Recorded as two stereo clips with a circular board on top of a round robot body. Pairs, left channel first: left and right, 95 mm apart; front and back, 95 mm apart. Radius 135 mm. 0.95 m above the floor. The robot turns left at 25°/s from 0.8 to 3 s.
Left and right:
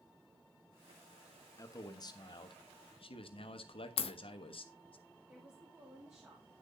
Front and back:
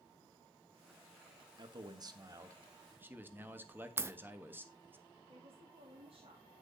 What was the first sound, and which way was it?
A man speaking, 145° left.